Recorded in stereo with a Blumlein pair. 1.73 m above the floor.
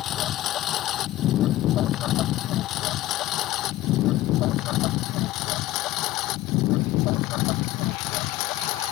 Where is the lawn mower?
30° left; by 8.9 s 40° left.